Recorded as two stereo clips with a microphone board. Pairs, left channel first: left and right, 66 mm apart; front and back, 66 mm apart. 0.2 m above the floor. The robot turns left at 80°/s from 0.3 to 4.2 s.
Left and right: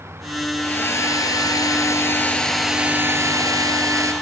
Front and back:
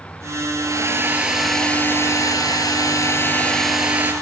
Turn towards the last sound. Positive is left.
turn(degrees=-130)